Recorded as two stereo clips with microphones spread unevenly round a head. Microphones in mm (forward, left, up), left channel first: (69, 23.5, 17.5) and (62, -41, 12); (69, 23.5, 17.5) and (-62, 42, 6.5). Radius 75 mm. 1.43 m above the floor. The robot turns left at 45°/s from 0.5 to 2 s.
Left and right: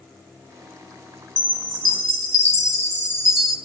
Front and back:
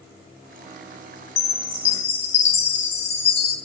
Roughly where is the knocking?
No knocking in this recording.